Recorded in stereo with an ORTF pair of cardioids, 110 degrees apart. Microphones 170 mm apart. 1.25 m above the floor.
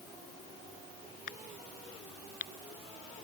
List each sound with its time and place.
1.3 s a crack: 60° left